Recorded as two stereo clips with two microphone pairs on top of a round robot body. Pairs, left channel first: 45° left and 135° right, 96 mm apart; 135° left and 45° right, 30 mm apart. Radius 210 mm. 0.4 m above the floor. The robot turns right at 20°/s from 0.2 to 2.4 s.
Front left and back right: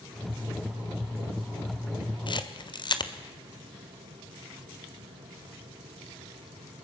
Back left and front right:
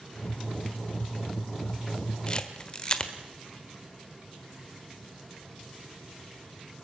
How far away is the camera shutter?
About 1.6 m.